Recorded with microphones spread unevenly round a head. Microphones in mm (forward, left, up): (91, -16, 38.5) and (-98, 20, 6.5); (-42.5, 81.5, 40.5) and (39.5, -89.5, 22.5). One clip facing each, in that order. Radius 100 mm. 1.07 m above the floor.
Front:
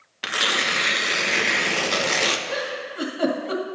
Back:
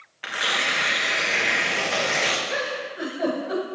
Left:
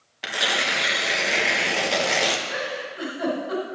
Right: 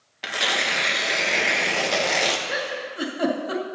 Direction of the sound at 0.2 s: 25° left.